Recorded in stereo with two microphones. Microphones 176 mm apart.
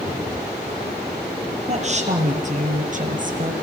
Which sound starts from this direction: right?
A woman speaking, at 1.7 s.